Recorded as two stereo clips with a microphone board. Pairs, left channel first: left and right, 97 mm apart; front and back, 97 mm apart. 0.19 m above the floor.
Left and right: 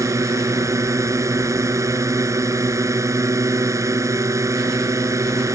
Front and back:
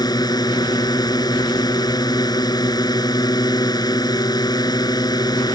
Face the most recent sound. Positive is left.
turn(degrees=-40)